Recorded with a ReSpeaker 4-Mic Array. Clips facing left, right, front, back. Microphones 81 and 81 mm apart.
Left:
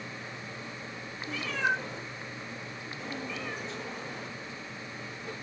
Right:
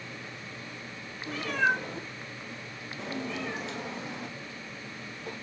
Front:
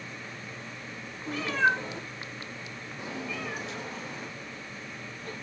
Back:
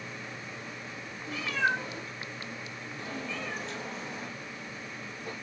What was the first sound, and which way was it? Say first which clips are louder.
A cat meowing: right 3 dB, front 4 dB; 45° right.